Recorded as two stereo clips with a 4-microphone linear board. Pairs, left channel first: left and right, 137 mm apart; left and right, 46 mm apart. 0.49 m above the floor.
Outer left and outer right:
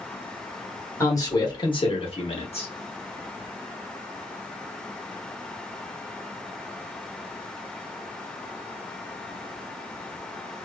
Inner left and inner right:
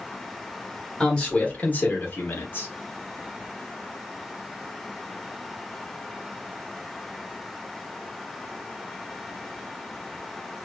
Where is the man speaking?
20° left (ahead or behind), 1.1 m; by 2.7 s 45° left (ahead or behind), 0.9 m.